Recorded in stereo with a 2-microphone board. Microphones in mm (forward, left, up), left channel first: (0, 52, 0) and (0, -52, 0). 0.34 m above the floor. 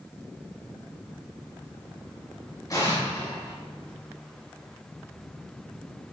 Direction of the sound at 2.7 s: 30° left (ahead or behind).